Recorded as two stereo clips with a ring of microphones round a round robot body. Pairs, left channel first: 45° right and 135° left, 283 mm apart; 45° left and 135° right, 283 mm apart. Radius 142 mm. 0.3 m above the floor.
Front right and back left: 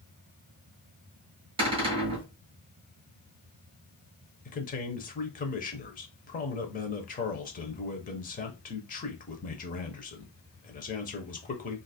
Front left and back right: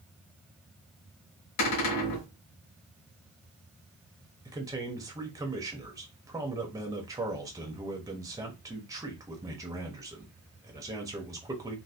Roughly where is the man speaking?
Right.